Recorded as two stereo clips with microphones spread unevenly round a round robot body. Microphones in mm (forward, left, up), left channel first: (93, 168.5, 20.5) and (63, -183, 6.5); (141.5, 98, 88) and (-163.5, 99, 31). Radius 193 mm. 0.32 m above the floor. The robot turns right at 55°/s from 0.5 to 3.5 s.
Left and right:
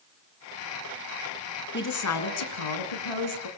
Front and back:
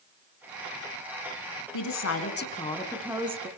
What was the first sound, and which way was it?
A woman speaking, 25° left.